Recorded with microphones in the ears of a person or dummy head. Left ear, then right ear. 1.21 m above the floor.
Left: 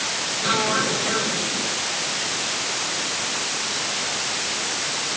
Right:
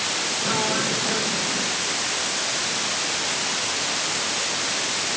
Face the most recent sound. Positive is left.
turn(degrees=45)  # may be behind; listen again after turning